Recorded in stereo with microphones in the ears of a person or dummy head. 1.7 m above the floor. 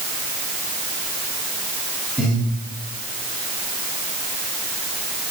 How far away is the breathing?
About 4.5 m.